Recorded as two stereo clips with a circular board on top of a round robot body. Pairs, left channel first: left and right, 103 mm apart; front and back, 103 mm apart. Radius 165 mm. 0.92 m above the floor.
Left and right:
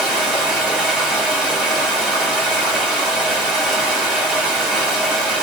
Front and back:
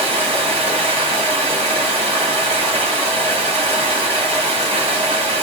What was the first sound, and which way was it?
Running water, 170° right.